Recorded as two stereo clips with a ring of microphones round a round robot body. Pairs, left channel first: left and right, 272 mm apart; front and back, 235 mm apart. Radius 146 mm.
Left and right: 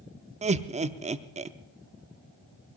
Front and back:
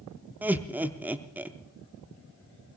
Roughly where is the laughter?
Right.